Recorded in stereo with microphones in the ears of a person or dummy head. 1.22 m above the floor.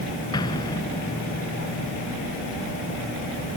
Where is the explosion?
25° left (ahead or behind).